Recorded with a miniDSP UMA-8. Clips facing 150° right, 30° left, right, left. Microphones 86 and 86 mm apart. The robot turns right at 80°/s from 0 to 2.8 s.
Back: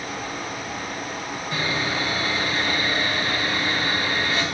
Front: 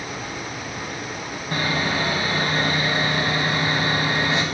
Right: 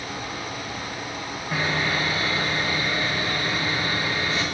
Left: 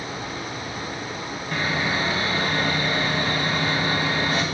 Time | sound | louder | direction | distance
1.5 | sawing | front 3 dB, even | 10° right | 2.5 m